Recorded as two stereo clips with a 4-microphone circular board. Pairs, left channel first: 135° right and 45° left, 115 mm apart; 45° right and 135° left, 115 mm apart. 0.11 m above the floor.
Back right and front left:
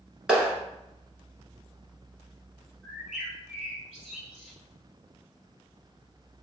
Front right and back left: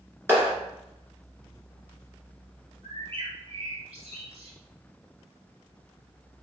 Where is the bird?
125° left, 1.3 m.